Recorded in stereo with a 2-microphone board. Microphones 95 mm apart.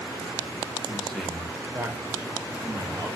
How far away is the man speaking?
About 1.4 m.